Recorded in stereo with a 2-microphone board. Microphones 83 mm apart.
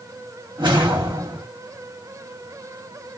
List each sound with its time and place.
0.6 s a whoosh: 85° right, 1.6 m